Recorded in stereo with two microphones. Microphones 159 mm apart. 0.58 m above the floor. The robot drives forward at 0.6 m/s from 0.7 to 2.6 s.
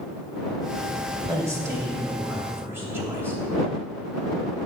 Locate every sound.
1.3 s a man speaking: 20° right (ahead or behind), 1.9 m; by 3.4 s 15° right (ahead or behind), 2.5 m